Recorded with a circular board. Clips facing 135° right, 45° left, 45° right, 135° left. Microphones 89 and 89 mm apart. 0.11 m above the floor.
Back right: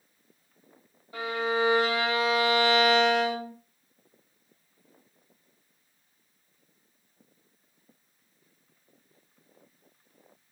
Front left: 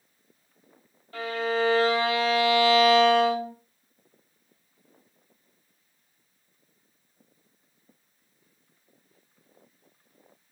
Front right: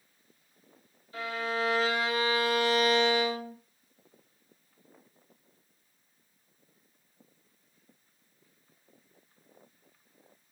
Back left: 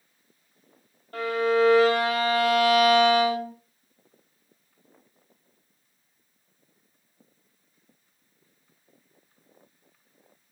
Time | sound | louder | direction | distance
1.1 | a violin | front left 1 dB, back left 10 dB | 155° left | 1.2 m